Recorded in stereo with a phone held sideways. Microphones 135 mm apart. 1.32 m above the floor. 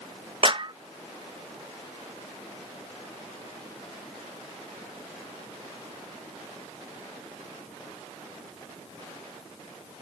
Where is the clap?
40° right (ahead or behind).